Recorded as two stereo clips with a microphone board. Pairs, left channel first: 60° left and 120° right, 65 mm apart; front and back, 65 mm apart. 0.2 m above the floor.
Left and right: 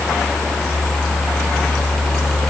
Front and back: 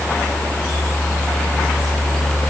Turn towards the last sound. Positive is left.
No sound to turn to.